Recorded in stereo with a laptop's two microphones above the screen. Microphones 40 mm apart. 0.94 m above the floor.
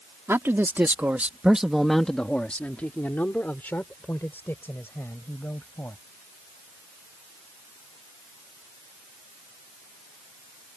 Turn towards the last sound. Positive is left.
turn(degrees=65)  # may be behind; listen again after turning